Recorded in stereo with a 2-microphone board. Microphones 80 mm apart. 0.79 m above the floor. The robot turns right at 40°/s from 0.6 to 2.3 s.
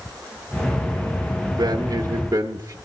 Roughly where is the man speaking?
Right.